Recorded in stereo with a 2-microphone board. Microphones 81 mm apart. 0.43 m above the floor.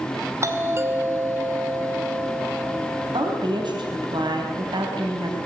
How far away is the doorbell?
About 2.5 m.